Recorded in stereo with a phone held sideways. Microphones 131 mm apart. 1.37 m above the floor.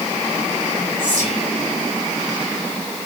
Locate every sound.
1.0 s whispering: 85° right, 7.5 m